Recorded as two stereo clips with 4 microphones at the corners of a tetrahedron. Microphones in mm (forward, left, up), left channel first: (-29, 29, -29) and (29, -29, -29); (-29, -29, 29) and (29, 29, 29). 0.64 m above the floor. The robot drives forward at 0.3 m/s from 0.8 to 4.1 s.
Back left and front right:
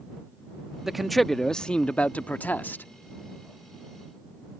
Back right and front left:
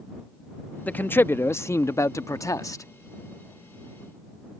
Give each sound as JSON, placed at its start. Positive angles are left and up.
{"t": 0.9, "sound": "a man speaking", "azimuth_deg": -125}